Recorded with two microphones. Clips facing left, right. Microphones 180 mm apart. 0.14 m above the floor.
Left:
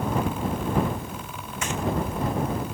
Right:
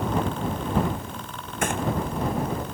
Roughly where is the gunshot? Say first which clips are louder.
Right 4 dB; right.